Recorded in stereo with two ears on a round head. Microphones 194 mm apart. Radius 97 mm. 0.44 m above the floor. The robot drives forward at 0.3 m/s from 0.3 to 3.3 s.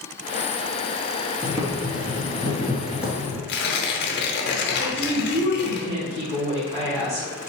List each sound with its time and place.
1.4 s boiling: 10° right (ahead or behind), 0.9 m; by 3.4 s 5° right (ahead or behind), 1.5 m
3.5 s tearing paper: 50° left (ahead or behind), 0.7 m
4.8 s a woman speaking: 30° right (ahead or behind), 1.4 m